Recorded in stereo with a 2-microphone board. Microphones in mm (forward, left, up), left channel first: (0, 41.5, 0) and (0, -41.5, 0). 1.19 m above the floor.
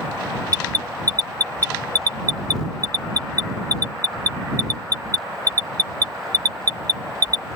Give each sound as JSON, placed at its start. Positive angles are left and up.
{"t": 0.5, "sound": "an alarm", "side_deg": -45}